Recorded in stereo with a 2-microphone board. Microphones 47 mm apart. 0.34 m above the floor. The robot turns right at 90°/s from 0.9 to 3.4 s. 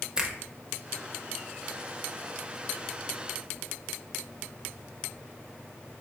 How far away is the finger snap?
About 0.7 m.